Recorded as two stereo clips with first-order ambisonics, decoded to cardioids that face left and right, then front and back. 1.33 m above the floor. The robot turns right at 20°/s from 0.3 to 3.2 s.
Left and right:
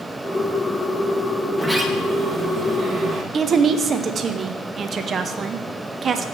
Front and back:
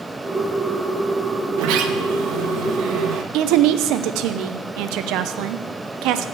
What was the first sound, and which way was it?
A sliding door, straight behind.